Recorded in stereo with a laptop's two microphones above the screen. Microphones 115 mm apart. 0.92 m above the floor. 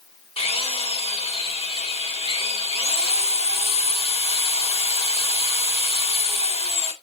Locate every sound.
0.4 s a drill: 65° left (ahead or behind), 2.5 m